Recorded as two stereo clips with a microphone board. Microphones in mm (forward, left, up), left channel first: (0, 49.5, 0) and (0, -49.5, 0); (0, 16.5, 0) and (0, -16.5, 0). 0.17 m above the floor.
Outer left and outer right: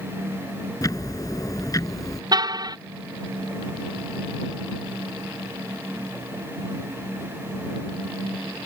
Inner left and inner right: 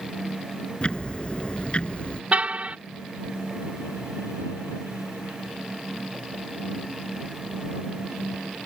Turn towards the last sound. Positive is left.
turn(degrees=-45)  # may be behind; listen again after turning